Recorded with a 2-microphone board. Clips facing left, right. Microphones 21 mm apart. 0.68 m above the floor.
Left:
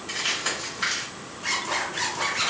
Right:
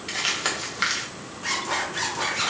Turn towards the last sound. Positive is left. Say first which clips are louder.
# even
turn(degrees=-10)  # may be behind; listen again after turning